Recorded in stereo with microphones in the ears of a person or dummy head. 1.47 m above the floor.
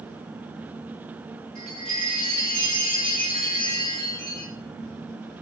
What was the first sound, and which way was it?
A chime, 35° right (ahead or behind).